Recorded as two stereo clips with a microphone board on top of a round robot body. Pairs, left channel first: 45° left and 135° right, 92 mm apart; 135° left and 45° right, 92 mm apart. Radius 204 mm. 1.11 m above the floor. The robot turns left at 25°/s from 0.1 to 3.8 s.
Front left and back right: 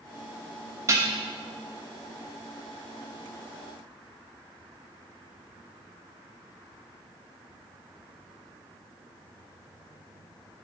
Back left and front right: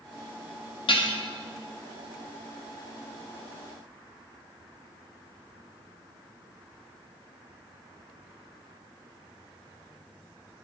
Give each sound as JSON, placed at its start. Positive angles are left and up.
{"t": 0.9, "sound": "dishes clattering", "azimuth_deg": 165, "distance_m": 1.1}